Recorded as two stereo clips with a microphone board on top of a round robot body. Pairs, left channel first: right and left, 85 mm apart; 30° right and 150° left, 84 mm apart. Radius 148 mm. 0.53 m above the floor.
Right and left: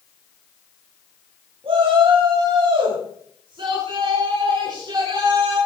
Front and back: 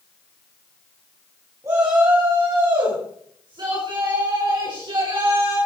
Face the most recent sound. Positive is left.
turn(degrees=125)